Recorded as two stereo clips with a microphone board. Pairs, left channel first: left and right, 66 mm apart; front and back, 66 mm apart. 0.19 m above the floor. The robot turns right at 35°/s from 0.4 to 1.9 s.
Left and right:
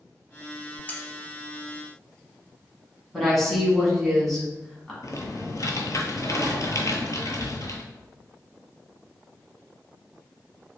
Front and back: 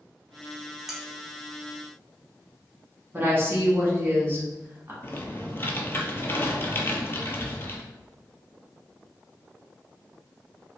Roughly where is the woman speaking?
Behind.